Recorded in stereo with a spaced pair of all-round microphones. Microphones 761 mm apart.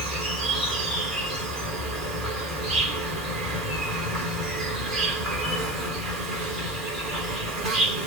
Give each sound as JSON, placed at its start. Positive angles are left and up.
{"t": 0.0, "sound": "an insect", "side_deg": -25, "distance_m": 1.6}